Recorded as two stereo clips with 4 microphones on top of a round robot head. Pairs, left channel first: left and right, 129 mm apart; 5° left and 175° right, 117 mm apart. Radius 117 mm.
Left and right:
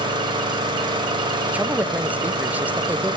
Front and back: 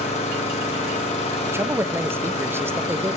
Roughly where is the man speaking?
Behind right.